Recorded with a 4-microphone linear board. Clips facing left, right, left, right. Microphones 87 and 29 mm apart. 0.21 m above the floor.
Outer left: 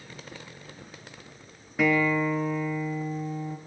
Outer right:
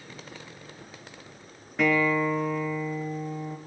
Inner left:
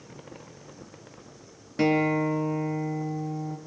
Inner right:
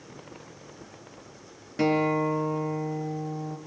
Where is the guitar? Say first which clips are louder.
Even, inner left 1 dB; centre (ahead or behind), 3.5 m.